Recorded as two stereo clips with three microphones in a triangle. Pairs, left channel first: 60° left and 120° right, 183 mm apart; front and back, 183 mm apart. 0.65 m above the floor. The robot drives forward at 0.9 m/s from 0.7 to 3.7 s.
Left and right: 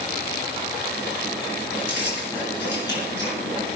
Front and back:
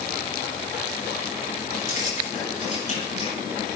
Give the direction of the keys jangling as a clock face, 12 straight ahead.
11 o'clock.